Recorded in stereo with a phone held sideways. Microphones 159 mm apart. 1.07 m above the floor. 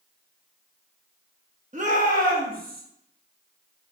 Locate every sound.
1.7 s a shout: 45° right (ahead or behind), 0.9 m; by 2.8 s 60° right (ahead or behind), 1.5 m